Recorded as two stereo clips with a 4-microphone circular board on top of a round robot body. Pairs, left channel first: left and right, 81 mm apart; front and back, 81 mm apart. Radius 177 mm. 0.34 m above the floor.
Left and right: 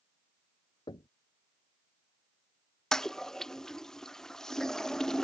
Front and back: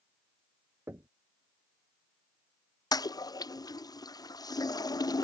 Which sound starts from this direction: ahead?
A toilet flushing, at 2.9 s.